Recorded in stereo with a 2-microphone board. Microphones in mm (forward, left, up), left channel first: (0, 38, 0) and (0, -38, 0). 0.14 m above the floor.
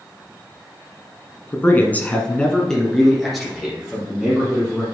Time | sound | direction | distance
1.5 | a man speaking | 25° left (ahead or behind) | 1.3 m